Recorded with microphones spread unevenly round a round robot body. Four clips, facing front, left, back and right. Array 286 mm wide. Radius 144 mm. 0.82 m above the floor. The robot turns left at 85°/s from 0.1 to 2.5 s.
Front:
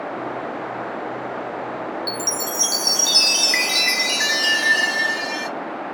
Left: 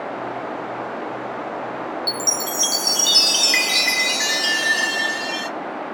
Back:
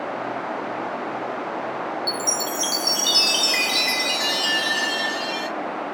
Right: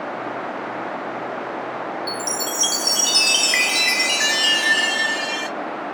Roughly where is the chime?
Ahead left.